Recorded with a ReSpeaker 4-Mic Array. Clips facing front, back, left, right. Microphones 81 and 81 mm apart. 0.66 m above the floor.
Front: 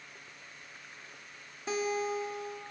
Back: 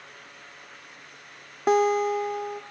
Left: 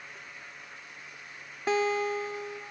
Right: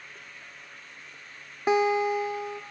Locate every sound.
1.7 s a guitar: 160° right, 0.8 m